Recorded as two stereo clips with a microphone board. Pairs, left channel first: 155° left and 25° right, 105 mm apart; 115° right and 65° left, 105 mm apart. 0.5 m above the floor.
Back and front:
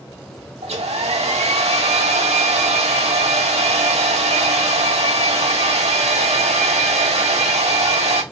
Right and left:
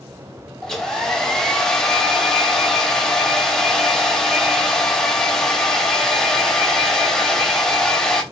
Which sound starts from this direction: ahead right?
A hair dryer, at 0.6 s.